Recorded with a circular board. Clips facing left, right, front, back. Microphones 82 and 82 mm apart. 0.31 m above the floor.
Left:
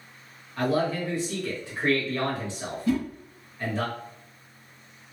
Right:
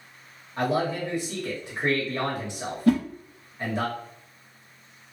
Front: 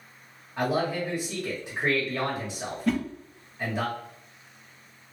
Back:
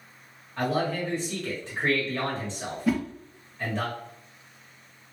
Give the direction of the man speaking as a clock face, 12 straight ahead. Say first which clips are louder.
Even, even; 2 o'clock.